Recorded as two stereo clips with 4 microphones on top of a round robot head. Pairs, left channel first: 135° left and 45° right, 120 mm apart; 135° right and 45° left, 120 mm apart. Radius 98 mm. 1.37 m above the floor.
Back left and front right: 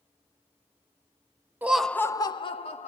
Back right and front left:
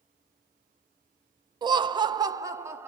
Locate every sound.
1.6 s laughter: 20° left, 0.5 m; by 2.9 s 115° left, 0.9 m